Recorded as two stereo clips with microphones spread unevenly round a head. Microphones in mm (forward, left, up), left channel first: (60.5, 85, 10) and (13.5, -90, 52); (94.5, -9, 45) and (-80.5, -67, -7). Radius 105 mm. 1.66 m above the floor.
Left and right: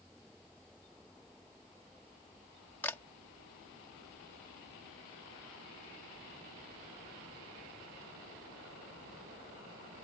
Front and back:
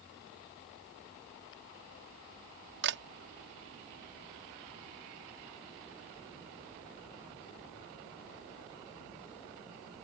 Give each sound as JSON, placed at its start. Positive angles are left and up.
{"t": 2.8, "sound": "a camera shutter", "azimuth_deg": 160}